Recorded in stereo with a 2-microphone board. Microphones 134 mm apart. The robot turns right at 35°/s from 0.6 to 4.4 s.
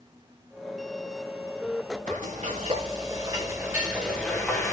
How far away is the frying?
About 3.5 m.